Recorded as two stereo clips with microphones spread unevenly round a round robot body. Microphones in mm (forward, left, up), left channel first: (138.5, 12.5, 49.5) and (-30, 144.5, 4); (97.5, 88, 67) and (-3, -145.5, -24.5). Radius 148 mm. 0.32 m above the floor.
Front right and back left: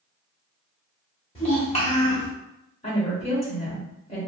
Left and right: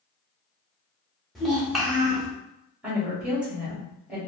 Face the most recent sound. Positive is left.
turn(degrees=-90)